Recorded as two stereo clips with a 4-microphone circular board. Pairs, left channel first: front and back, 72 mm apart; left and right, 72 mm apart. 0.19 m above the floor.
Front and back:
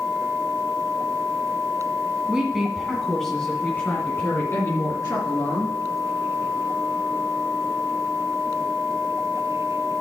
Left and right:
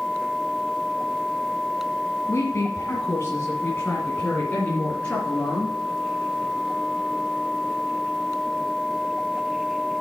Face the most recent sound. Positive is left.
turn(degrees=20)